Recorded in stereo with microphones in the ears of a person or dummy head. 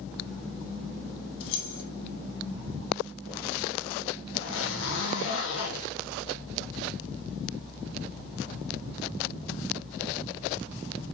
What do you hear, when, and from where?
1.4 s keys jangling: 75° left (ahead or behind), 3 m
4.3 s a zipper: 70° left (ahead or behind), 3.5 m